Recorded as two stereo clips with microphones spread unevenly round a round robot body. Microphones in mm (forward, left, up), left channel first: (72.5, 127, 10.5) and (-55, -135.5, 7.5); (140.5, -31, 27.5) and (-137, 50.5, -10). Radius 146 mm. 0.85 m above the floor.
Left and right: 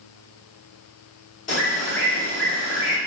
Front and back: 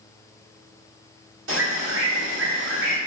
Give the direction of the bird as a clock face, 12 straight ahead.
8 o'clock.